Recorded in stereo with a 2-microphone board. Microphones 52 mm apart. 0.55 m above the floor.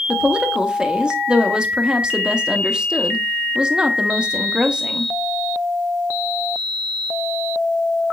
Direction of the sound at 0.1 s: 15° right (ahead or behind).